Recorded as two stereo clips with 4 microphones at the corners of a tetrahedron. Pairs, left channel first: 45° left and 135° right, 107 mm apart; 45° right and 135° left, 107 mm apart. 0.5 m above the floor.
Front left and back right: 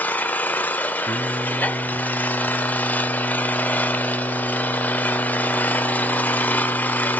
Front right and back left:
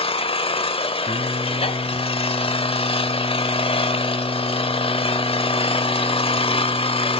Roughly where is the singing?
Behind.